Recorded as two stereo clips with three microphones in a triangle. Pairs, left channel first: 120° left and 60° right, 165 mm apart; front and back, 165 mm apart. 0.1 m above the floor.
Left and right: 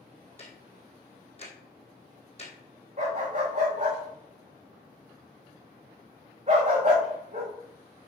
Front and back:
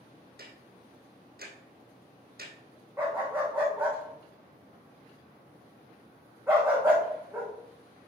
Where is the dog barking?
105° right, 3.5 m.